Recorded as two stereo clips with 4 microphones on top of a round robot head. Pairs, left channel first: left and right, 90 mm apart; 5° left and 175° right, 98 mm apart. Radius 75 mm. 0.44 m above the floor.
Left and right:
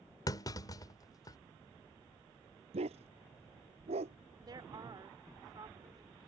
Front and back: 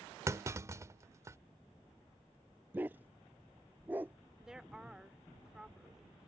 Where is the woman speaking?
95° right.